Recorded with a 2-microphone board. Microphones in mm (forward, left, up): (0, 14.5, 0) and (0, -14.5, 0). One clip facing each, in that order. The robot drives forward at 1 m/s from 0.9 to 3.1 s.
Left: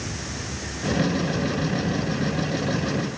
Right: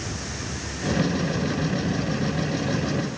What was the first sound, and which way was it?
Only background noise.